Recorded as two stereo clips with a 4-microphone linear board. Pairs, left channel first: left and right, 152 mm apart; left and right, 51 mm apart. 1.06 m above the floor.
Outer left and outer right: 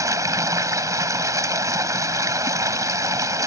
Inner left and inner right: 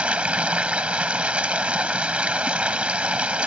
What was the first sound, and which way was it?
Running water, 20° right (ahead or behind).